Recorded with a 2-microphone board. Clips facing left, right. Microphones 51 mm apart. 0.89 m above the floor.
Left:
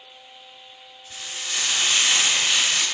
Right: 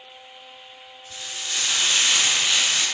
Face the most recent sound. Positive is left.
turn(degrees=30)  # may be behind; listen again after turning